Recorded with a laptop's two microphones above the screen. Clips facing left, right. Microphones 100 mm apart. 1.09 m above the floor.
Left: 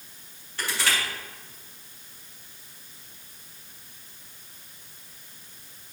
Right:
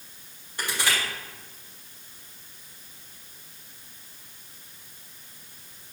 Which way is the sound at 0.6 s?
20° right (ahead or behind).